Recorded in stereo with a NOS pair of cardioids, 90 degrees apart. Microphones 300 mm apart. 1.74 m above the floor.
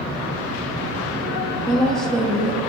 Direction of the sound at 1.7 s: Straight ahead.